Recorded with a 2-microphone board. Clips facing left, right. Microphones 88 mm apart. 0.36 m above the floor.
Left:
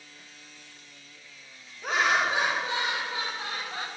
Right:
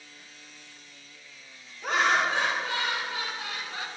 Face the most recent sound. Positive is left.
turn(degrees=50)  # may be behind; listen again after turning